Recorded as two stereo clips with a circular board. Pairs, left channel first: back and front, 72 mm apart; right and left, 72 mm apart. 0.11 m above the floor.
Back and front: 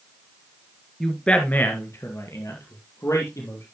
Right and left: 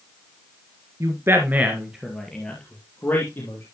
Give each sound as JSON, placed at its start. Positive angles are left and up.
{"t": 1.0, "sound": "a man speaking", "azimuth_deg": 95, "distance_m": 1.8}